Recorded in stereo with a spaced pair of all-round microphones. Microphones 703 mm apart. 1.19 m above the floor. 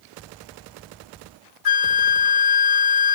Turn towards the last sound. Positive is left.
turn(degrees=55)  # may be behind; listen again after turning